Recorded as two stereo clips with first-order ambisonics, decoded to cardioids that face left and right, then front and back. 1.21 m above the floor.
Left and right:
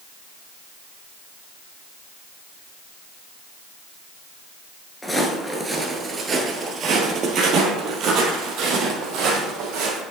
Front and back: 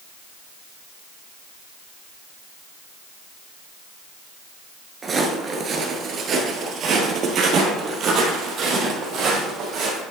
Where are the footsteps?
160° left, 1.2 m; by 10.0 s 125° right, 3 m.